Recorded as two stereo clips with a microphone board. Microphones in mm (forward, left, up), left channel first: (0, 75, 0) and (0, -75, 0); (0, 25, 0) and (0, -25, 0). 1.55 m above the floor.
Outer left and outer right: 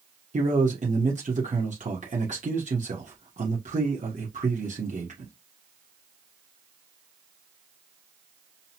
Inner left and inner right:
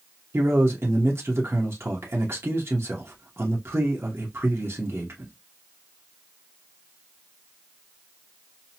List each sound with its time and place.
0.3 s a man speaking: 55° right (ahead or behind), 1.2 m